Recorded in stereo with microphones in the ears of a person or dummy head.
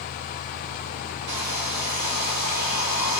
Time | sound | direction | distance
1.3 | a hair dryer | 55° right (ahead or behind) | 1.7 m